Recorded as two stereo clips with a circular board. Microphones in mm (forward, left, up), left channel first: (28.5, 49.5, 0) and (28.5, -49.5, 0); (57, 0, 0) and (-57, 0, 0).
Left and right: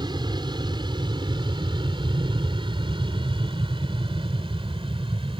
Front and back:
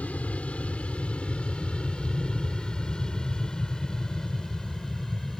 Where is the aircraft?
75° right; by 5.4 s 85° right.